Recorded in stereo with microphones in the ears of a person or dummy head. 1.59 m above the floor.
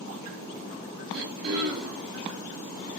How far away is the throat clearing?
About 1.9 m.